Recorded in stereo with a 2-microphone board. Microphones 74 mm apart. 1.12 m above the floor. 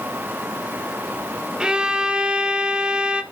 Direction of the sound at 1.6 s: 15° right (ahead or behind).